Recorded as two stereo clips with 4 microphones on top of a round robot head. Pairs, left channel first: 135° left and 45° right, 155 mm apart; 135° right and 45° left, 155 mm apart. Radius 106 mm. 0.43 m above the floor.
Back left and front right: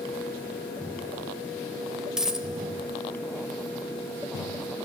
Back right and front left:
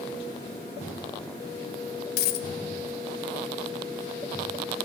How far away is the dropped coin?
About 0.8 m.